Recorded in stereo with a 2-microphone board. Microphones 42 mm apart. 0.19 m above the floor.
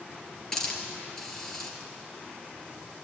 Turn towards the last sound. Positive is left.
turn(degrees=10)  # may be behind; listen again after turning